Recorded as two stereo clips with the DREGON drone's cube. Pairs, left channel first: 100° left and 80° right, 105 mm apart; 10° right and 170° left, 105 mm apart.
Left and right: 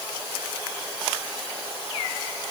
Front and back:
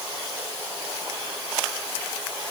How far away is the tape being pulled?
I don't hear tape being pulled.